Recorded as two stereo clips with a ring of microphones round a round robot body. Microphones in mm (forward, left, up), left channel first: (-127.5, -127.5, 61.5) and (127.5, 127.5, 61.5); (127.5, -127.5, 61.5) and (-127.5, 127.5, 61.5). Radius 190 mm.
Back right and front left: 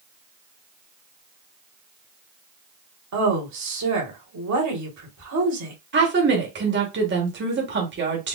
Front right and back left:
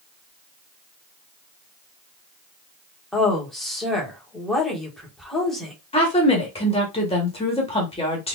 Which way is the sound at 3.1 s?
45° left.